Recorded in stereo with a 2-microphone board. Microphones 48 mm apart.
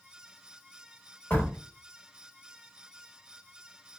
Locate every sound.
1.3 s a door slam: 35° left (ahead or behind), 1.3 m